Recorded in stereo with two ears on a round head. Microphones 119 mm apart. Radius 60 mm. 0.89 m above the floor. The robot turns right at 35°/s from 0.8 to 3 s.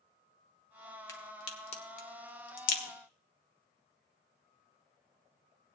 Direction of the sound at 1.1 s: 25° left (ahead or behind).